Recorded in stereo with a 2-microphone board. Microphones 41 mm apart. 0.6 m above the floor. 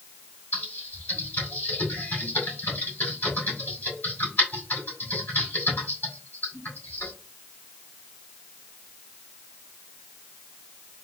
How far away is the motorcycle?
No motorcycle in this recording.